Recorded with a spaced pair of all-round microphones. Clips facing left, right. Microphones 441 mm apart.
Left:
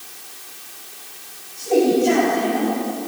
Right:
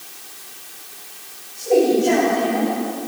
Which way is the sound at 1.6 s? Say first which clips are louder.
Right 1 dB; 35° left (ahead or behind).